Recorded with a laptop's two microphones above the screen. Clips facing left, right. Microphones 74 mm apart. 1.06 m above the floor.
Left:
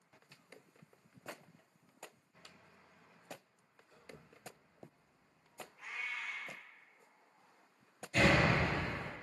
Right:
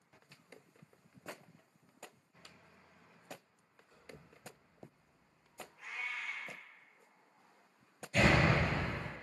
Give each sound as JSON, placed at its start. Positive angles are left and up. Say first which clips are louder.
{"t": 3.9, "sound": "footsteps", "louder": "even", "side_deg": 10, "distance_m": 1.5}
{"t": 5.8, "sound": "a cat meowing", "louder": "right 1 dB", "side_deg": 0, "distance_m": 0.7}
{"t": 8.1, "sound": "a door slam", "louder": "even", "side_deg": 30, "distance_m": 1.2}